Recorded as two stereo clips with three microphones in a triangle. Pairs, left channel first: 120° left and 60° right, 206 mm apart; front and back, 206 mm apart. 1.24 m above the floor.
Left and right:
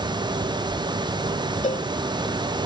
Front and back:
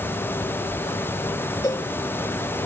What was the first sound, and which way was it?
A cowbell, 70° left.